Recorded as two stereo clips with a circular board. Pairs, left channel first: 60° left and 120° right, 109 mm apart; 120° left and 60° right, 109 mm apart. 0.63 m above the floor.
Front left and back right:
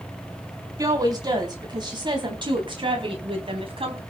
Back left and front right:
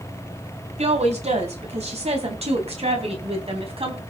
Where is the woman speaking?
65° right, 3.5 m; by 4.0 s 90° right, 4 m.